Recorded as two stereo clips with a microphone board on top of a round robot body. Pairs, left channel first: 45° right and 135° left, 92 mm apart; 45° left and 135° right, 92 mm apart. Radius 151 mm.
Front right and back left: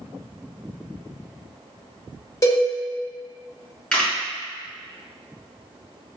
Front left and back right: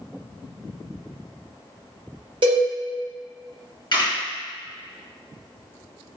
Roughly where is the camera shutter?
Ahead left.